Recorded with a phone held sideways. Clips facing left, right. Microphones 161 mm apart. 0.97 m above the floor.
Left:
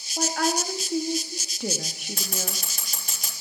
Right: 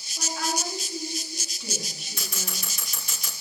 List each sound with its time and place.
0.2 s a woman speaking: 60° left (ahead or behind), 1.2 m
2.2 s scissors: 50° left (ahead or behind), 4 m